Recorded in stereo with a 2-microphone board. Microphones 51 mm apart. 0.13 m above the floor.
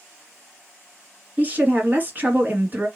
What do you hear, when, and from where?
1.4 s a woman speaking: 30° right (ahead or behind), 1.7 m